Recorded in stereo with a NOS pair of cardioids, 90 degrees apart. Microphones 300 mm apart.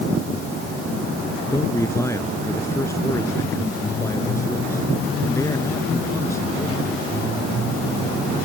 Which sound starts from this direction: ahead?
A man speaking, at 1.5 s.